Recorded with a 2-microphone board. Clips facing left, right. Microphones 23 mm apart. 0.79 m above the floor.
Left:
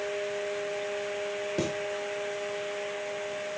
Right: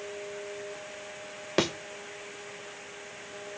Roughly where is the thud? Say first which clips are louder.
Right 6 dB; right.